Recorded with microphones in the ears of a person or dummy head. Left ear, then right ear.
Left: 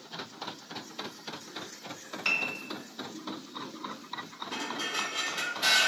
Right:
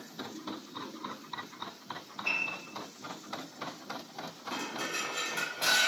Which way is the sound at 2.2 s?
80° left.